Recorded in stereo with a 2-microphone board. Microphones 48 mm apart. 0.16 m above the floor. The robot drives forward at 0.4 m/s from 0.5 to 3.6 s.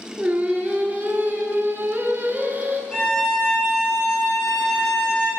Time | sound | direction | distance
0.2 | singing | 35° right (ahead or behind) | 0.7 m
2.9 | a violin | 10° left (ahead or behind) | 2 m